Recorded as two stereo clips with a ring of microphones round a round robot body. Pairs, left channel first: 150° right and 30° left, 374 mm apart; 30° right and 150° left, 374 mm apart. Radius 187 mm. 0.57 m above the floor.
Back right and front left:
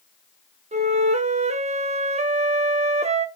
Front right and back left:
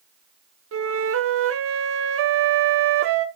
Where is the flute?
100° left, 0.8 m.